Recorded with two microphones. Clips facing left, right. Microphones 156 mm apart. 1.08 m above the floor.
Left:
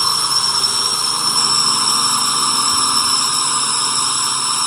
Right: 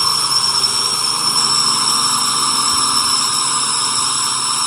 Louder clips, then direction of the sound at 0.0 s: Even; centre (ahead or behind).